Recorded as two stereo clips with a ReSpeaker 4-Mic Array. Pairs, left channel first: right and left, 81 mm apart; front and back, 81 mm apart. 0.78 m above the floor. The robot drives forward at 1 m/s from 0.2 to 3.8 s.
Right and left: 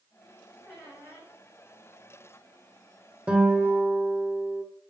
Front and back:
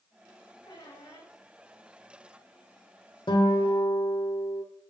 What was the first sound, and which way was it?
A squeak, 10° left.